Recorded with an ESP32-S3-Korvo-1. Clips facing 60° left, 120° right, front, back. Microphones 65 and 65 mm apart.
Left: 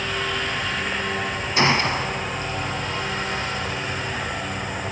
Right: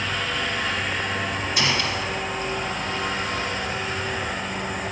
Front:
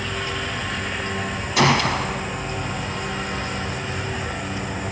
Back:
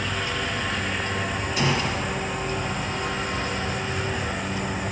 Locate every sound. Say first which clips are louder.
1.6 s a gunshot: left 6 dB, front 8 dB; 5° left, 1.6 m